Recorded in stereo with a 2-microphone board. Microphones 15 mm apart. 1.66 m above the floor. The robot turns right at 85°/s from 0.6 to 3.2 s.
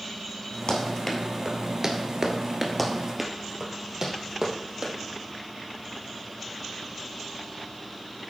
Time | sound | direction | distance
0.7 | running footsteps | 50° left (ahead or behind) | 2.5 m
2.8 | running footsteps | 15° left (ahead or behind) | 1.9 m